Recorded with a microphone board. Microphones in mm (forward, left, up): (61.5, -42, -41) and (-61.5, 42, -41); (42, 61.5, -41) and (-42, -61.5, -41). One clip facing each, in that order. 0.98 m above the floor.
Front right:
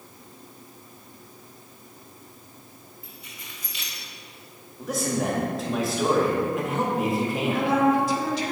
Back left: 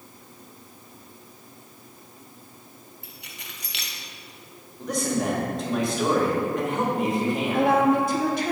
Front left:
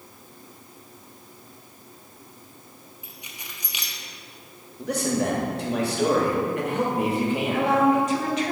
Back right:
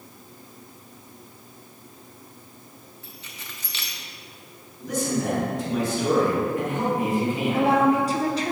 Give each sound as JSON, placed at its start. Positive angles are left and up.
{"t": 3.0, "sound": "keys jangling", "azimuth_deg": 130, "distance_m": 0.9}
{"t": 4.8, "sound": "a man speaking", "azimuth_deg": 50, "distance_m": 1.7}
{"t": 7.5, "sound": "a woman speaking", "azimuth_deg": 180, "distance_m": 1.3}